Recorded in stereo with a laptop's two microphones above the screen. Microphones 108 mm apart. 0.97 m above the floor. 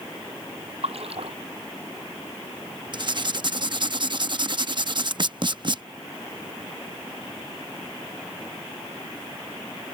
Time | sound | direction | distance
0.8 | a splash | 65° right (ahead or behind) | ?
2.9 | writing | 45° right (ahead or behind) | ?